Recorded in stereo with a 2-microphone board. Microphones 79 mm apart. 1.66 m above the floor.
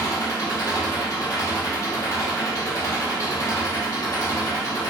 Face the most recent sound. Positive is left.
turn(degrees=40)  # may be behind; listen again after turning